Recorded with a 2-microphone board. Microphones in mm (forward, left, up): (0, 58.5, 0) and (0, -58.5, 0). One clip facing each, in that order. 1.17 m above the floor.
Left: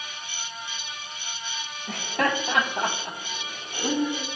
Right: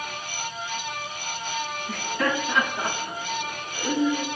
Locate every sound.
1.9 s laughter: 80° left, 3.5 m; by 4.2 s 50° left (ahead or behind), 4.5 m